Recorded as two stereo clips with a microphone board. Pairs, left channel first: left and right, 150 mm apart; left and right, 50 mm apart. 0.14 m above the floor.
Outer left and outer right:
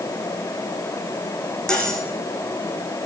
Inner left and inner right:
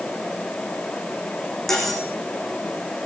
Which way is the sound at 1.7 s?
5° left (ahead or behind).